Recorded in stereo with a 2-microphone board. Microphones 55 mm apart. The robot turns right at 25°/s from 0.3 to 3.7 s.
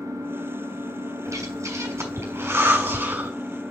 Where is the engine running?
110° right, 1.7 m; by 3.7 s 25° right, 1.7 m.